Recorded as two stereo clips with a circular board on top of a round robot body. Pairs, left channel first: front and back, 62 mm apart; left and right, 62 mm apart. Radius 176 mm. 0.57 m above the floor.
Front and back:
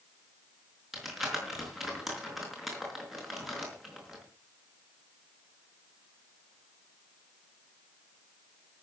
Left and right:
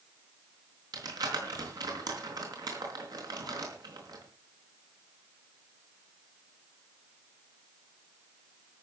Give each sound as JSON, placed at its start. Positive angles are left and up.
{"t": 0.9, "sound": "crumpling", "azimuth_deg": -95, "distance_m": 5.0}